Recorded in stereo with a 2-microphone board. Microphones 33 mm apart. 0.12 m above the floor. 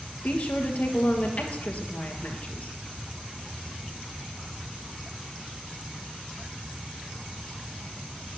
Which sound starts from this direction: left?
A woman speaking, at 0.2 s.